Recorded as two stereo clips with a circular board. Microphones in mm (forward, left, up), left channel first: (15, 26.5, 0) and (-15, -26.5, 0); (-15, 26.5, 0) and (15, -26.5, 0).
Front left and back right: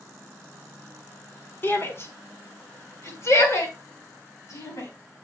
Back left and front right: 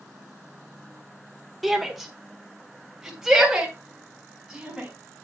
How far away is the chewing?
I don't hear chewing.